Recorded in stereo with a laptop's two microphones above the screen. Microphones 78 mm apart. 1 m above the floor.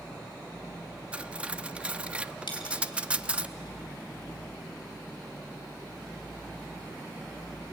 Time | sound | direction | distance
1.1 | cutlery clinking | 15° right (ahead or behind) | 0.6 m
2.5 | a dropped coin | 80° left | 3.5 m